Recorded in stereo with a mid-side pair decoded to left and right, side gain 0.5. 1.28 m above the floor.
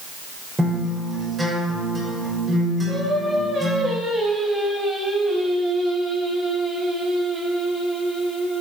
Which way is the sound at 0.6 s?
25° right.